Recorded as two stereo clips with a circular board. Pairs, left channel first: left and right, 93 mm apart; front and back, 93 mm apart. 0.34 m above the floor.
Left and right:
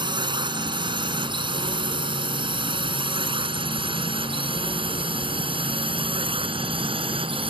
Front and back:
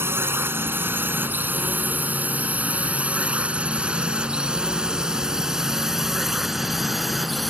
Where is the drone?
115° right; by 7.5 s 90° right.